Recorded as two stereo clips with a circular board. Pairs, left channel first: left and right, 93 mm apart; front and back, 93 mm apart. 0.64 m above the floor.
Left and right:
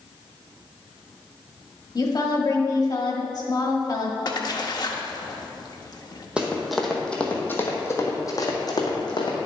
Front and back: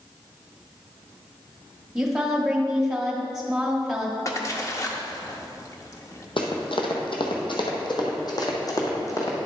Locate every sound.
1.9 s a woman speaking: 95° left, 1.5 m
4.2 s a splash: 50° left, 0.8 m
6.4 s running footsteps: 10° right, 1.4 m; by 9.4 s 55° left, 2 m